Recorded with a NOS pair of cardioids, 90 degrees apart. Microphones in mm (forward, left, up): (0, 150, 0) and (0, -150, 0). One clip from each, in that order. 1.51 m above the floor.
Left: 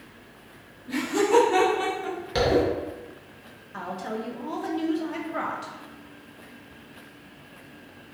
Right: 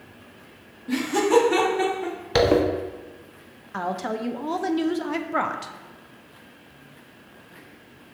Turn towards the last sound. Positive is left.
turn(degrees=-35)